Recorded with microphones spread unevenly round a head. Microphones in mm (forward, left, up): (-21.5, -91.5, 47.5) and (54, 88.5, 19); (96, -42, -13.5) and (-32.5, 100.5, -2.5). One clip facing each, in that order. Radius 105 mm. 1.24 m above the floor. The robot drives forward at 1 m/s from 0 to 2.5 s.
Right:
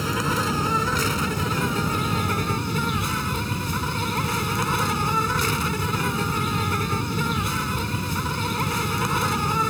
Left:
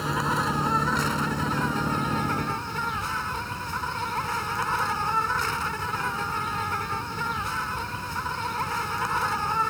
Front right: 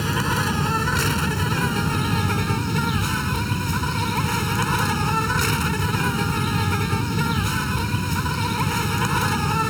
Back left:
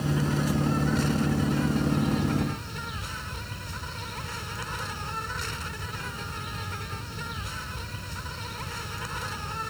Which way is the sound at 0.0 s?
55° right.